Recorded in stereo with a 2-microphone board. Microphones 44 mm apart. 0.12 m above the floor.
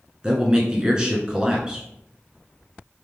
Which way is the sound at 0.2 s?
20° right (ahead or behind).